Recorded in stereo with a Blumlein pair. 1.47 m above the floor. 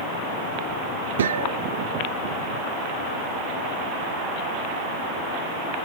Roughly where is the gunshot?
Ahead right.